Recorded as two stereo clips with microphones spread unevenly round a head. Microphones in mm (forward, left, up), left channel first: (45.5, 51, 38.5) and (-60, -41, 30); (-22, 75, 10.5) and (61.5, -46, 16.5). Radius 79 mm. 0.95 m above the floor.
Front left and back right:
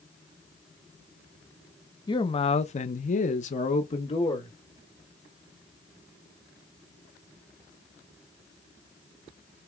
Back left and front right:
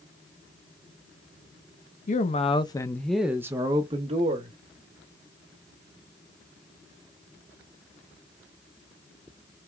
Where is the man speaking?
100° left, 1.0 m; by 4.5 s 10° right, 1.3 m.